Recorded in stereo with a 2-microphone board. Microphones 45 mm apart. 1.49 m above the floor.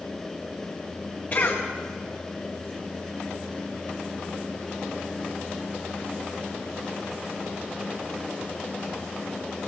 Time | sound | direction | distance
1.3 | a cough | 40° left (ahead or behind) | 1.3 m